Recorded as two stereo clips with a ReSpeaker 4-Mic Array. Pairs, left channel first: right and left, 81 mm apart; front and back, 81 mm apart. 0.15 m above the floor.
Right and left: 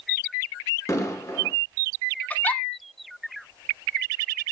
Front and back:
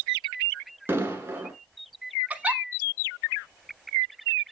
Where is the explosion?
130° right, 1.4 m.